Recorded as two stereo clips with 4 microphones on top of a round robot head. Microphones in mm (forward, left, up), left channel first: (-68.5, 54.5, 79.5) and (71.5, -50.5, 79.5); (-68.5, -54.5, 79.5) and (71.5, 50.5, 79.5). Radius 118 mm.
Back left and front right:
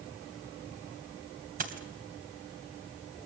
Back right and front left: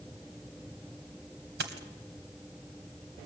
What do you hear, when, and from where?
1.6 s a dropped coin: 5° left, 2.5 m